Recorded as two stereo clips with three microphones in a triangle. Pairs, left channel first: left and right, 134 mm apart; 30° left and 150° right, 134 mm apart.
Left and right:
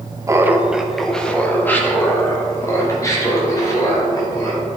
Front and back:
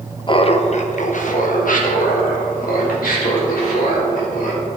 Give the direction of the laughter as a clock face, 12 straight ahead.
1 o'clock.